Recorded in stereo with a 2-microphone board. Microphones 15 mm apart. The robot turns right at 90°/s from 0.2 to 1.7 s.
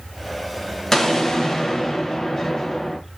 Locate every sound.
0.9 s an explosion: 45° left, 0.9 m; by 3.0 s 120° left, 0.9 m